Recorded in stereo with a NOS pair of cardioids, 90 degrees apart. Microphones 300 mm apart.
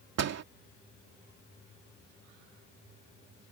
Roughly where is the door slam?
Ahead right.